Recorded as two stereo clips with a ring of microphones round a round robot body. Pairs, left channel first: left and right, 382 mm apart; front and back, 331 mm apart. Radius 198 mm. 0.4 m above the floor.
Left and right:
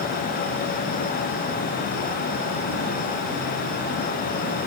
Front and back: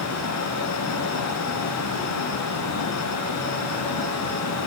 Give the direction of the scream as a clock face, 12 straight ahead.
No scream in this recording.